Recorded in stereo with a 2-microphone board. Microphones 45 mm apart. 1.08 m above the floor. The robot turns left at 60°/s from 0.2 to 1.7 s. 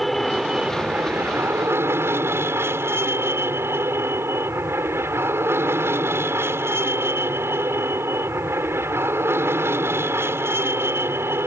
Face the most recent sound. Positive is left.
turn(degrees=-90)